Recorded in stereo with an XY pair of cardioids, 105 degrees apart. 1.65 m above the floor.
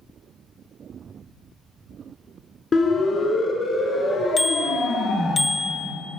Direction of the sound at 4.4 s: 35° left.